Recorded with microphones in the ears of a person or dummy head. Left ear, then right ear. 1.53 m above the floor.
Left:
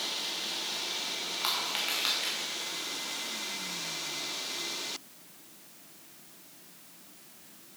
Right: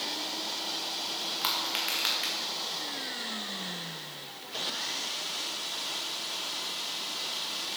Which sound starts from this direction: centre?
Crushing, at 1.4 s.